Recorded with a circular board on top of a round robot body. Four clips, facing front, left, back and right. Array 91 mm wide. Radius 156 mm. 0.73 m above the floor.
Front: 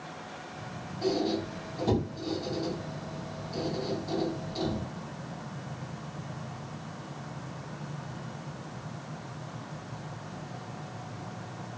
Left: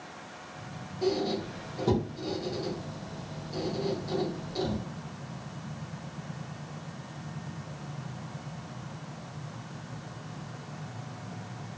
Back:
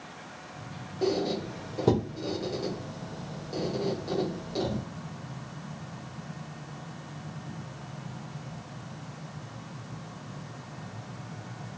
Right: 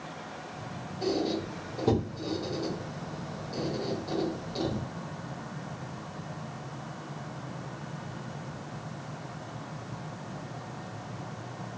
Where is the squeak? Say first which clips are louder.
Left 1 dB, back 1 dB; 165° right, 0.9 m.